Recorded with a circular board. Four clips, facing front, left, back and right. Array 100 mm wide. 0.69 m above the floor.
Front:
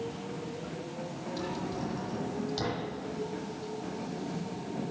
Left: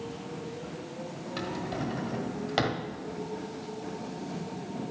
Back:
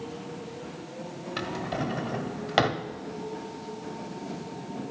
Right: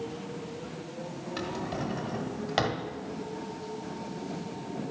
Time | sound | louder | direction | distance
1.4 | a drawer | even, back 4 dB | straight behind | 1.0 m